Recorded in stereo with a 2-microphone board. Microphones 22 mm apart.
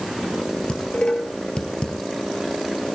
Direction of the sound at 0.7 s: 50° left (ahead or behind).